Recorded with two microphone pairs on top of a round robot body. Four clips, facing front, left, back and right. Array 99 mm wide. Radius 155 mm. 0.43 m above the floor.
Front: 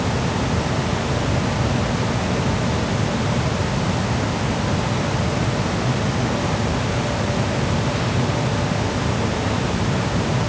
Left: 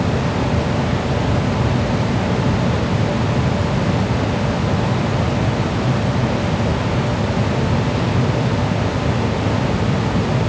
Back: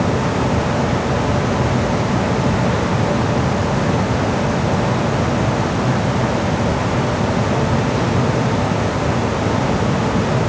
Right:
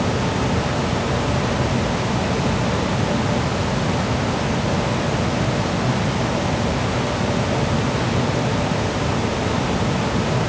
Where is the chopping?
I don't hear chopping.